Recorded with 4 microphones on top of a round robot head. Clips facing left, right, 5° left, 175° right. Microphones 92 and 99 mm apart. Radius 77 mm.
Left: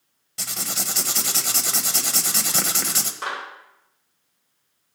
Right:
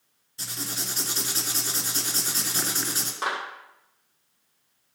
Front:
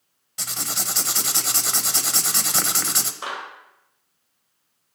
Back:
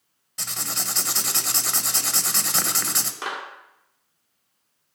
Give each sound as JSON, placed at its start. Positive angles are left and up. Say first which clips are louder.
{"t": 0.4, "sound": "writing", "louder": "left 3 dB, front 1 dB", "azimuth_deg": 90, "distance_m": 0.8}
{"t": 3.2, "sound": "a clap", "louder": "right 1 dB, back 1 dB", "azimuth_deg": -165, "distance_m": 2.5}